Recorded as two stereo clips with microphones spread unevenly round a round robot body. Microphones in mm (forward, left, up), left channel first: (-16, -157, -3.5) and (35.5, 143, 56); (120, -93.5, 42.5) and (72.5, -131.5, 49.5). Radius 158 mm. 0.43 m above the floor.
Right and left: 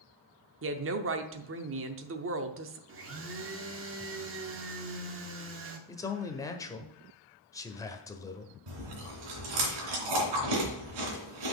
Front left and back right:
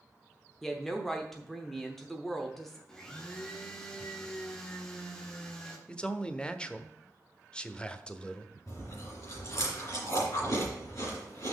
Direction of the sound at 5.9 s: 30° right.